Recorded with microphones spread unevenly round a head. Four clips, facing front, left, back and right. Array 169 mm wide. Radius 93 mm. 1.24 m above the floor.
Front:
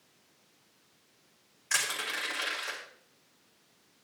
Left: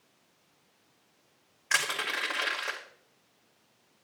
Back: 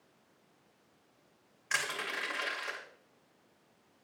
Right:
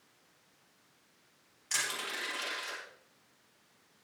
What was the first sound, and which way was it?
Crushing, 95° left.